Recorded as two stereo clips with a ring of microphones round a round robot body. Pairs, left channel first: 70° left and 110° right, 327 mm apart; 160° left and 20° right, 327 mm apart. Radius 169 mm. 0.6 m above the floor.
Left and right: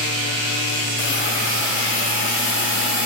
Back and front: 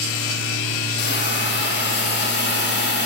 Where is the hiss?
110° left, 0.8 m.